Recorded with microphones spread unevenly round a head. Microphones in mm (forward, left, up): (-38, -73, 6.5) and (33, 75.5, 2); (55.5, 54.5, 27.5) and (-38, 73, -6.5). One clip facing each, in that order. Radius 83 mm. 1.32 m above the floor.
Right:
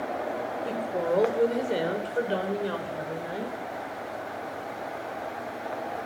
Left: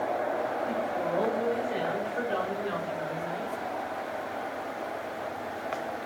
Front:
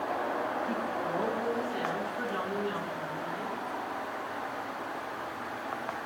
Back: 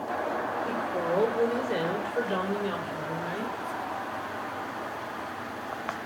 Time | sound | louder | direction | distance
0.7 | a woman speaking | right 2 dB, back 3 dB | 140° right | 5 m